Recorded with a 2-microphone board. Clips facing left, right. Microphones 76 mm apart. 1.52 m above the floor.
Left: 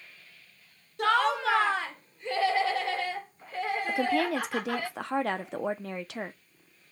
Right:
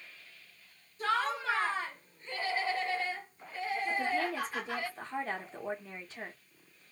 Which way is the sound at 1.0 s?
70° left (ahead or behind).